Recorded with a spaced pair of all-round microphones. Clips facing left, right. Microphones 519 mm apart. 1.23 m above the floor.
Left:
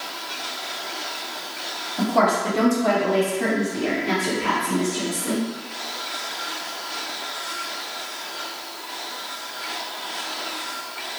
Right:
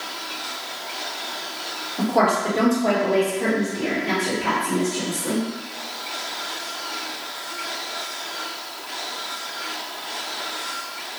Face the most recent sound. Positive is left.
turn(degrees=15)  # may be behind; listen again after turning